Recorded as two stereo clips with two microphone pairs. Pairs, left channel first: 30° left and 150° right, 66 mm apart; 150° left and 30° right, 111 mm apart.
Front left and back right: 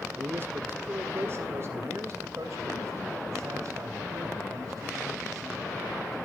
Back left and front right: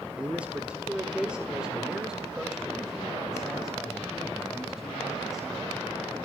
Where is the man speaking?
105° right, 1.7 m; by 6.2 s 120° right, 5 m.